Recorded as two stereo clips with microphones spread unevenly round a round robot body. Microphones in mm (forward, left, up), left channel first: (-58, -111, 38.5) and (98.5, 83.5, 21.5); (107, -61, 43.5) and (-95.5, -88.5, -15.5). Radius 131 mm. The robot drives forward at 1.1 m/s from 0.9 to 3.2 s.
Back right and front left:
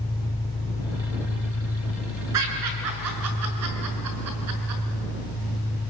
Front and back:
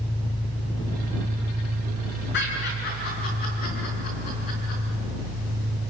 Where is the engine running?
65° right, 1.0 m; by 5.9 s 170° right, 2.5 m.